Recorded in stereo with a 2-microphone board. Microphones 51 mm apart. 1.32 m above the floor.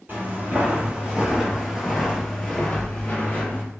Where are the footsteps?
35° right (ahead or behind), 1.6 m; by 3.6 s 35° left (ahead or behind), 1.5 m.